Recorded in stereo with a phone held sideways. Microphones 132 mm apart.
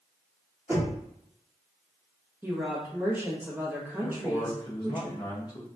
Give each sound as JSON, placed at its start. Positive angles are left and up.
{"t": 0.7, "sound": "knocking", "side_deg": -20, "distance_m": 2.5}
{"t": 2.4, "sound": "a woman speaking", "side_deg": -15, "distance_m": 1.5}
{"t": 4.0, "sound": "a man speaking", "side_deg": 35, "distance_m": 1.4}